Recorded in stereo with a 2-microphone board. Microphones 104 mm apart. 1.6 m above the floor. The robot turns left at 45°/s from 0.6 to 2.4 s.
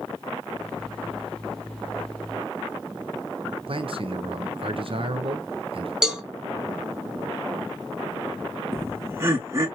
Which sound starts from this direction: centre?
A cowbell, at 6.0 s.